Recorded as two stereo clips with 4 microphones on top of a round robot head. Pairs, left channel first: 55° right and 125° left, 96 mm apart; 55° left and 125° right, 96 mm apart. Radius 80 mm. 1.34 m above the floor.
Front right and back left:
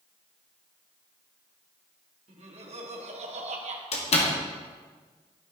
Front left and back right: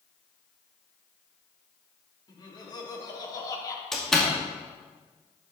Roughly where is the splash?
I don't hear a splash.